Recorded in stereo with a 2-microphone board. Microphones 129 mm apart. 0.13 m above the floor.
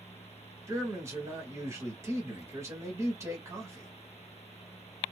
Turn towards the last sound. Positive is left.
turn(degrees=-25)  # may be behind; listen again after turning